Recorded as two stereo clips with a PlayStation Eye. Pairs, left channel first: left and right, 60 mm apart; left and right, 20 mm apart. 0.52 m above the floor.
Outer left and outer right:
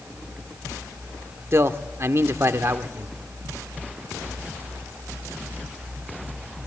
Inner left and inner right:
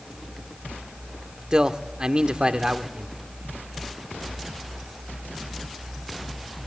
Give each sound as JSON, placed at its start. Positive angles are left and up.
{"t": 1.5, "sound": "a man speaking", "side_deg": -50, "distance_m": 1.0}